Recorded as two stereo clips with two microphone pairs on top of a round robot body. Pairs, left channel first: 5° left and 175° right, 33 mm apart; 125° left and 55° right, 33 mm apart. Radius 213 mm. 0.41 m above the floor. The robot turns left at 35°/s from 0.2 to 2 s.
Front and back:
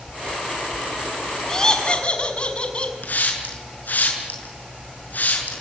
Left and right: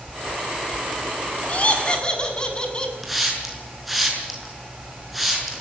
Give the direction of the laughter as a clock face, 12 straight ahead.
9 o'clock.